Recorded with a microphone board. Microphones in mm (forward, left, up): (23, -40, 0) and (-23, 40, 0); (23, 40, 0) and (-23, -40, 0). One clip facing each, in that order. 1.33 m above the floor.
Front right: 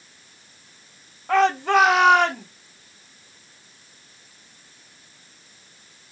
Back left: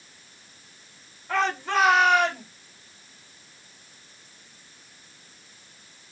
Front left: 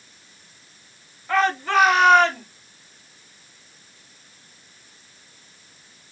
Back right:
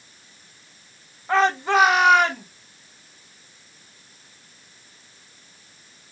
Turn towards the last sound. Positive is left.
turn(degrees=-40)